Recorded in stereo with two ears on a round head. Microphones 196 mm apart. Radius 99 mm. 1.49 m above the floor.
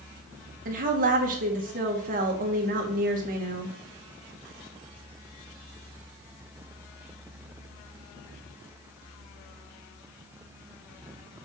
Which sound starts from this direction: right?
A woman speaking, at 0.7 s.